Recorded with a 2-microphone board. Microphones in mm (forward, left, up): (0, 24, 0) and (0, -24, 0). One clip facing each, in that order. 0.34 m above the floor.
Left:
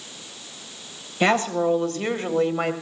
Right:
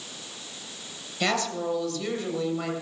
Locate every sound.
1.2 s a woman speaking: 30° left (ahead or behind), 1.9 m; by 2.7 s 50° left (ahead or behind), 1.9 m